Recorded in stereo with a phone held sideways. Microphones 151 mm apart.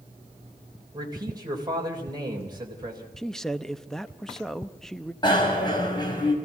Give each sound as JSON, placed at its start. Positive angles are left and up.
{"t": 0.9, "sound": "a man speaking", "side_deg": -30, "distance_m": 3.5}
{"t": 3.2, "sound": "a man speaking", "side_deg": 5, "distance_m": 0.7}
{"t": 5.2, "sound": "a bicycle bell", "side_deg": 30, "distance_m": 4.5}